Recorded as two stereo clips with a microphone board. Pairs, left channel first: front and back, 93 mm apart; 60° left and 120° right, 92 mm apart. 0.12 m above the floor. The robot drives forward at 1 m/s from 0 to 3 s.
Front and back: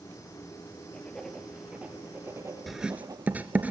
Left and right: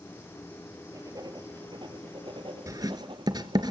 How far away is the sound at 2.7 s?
About 1.0 m.